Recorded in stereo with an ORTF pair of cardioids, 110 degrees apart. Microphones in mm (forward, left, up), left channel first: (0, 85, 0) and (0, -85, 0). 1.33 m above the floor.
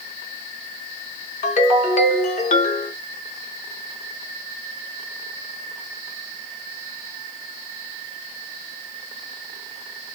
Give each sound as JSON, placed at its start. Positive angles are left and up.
{"t": 1.4, "sound": "a ringtone", "azimuth_deg": 45, "distance_m": 1.2}